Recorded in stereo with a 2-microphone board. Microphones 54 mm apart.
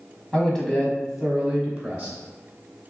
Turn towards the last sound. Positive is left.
turn(degrees=-20)  # may be behind; listen again after turning